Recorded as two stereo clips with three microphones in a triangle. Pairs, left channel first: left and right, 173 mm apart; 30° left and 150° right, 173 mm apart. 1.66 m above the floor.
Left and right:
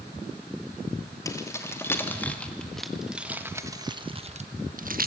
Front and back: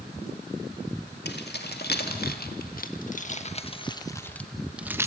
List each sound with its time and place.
1.2 s keys jangling: 20° left, 2.5 m; by 5.1 s 75° right, 1.3 m